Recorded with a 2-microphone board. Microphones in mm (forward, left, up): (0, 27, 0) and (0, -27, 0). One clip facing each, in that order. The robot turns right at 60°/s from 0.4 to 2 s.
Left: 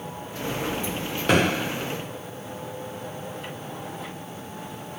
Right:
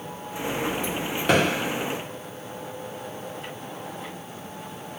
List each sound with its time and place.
1.3 s a thud: centre (ahead or behind), 0.8 m; by 1.4 s 5° right (ahead or behind), 0.8 m